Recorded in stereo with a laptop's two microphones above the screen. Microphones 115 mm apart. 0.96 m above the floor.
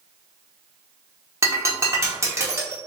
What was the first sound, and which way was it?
Breaking glass, 25° right (ahead or behind).